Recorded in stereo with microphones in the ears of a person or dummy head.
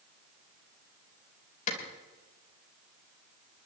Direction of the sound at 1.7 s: 45° left (ahead or behind).